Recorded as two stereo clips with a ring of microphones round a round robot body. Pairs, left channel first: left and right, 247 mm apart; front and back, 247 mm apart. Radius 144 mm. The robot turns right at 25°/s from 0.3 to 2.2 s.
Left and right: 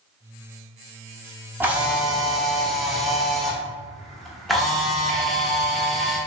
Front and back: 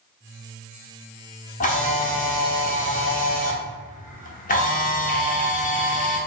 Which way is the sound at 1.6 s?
15° right.